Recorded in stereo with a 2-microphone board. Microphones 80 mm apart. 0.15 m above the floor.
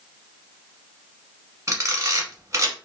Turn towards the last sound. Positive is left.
turn(degrees=-35)  # may be behind; listen again after turning